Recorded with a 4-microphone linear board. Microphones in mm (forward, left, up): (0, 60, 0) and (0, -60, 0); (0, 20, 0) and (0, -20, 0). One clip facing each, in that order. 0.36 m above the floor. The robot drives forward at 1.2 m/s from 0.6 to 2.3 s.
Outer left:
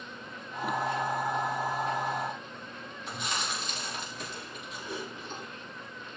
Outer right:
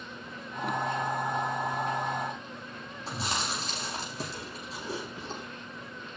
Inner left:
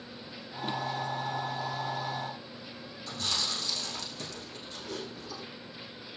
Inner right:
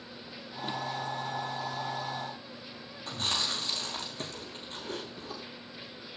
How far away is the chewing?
About 6 m.